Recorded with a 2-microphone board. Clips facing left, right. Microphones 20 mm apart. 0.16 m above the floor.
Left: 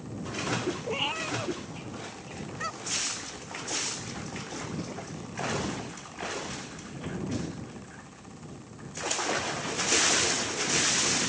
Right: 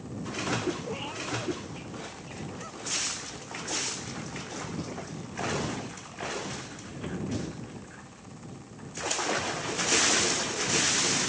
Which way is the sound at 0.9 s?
40° left (ahead or behind).